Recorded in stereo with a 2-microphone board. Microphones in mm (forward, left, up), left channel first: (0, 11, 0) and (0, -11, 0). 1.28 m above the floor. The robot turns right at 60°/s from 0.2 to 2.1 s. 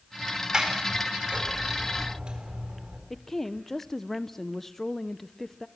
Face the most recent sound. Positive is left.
turn(degrees=15)  # may be behind; listen again after turning